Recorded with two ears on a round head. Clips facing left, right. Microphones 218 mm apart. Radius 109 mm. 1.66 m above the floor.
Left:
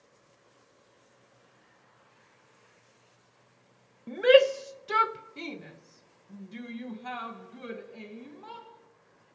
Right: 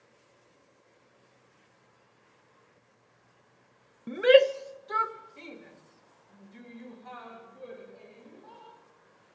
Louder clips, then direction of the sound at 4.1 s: Even; 20° right (ahead or behind).